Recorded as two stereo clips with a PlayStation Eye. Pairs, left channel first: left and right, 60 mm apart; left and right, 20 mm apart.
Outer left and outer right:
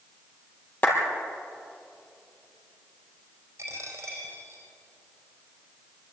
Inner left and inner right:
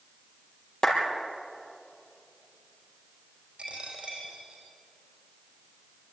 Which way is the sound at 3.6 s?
50° right (ahead or behind).